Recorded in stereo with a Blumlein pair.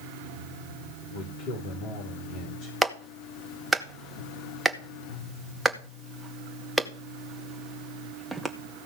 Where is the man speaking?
40° left, 4 m.